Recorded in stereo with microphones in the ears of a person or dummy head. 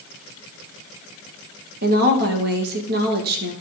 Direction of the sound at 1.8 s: 55° right (ahead or behind).